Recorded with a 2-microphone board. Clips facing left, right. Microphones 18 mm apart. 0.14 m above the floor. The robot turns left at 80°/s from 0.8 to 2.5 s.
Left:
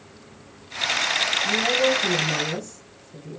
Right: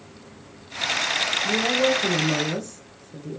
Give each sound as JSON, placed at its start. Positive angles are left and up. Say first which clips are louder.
{"t": 1.4, "sound": "a woman speaking", "louder": "right 1 dB", "azimuth_deg": -35, "distance_m": 5.5}